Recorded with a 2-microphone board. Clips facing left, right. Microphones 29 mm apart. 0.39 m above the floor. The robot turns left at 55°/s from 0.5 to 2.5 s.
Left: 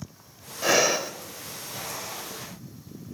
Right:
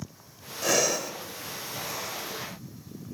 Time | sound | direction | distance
0.6 | breathing | 20° left (ahead or behind) | 1.3 m